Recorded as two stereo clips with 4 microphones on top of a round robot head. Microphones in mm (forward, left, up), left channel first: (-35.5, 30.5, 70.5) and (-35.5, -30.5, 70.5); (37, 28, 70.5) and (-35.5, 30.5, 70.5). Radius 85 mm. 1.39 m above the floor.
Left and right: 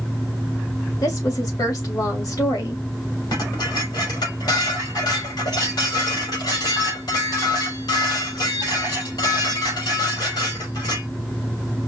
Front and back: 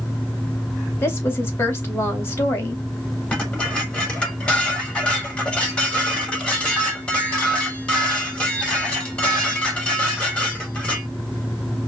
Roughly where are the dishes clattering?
Left.